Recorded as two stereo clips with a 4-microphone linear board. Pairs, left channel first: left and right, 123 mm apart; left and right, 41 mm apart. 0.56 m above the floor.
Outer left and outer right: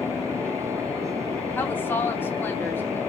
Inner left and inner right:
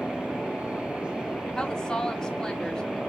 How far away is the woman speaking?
About 1.0 m.